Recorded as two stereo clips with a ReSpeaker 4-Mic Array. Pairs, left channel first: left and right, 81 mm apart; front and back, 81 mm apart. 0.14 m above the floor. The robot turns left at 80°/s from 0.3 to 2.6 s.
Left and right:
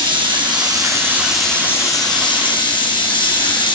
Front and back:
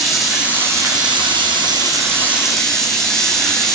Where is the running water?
90° right, 2.5 m; by 3.8 s 85° left, 2.5 m.